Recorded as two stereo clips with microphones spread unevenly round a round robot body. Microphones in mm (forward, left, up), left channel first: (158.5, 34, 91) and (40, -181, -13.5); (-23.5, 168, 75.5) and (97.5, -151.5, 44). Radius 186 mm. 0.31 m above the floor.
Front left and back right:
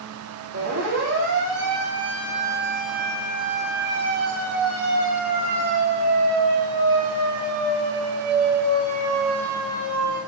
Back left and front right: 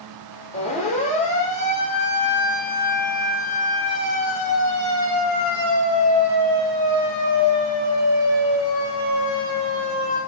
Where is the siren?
175° right, 10 m; by 10.2 s 175° left, 15 m.